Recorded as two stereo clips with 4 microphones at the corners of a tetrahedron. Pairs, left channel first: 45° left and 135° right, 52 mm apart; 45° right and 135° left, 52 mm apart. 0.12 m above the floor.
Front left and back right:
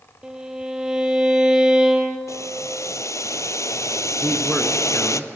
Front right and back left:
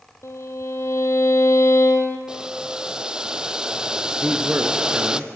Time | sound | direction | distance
0.2 | a violin | 60° right | 1.6 m
2.3 | boiling | 60° left | 0.6 m
4.2 | a man speaking | 125° left | 1.3 m